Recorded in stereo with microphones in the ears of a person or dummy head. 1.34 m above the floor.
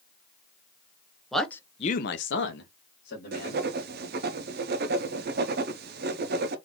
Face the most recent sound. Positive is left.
turn(degrees=-55)  # may be behind; listen again after turning